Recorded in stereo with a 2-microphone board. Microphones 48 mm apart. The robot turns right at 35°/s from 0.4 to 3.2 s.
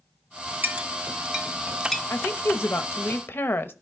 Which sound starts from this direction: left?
A woman speaking, at 2.1 s.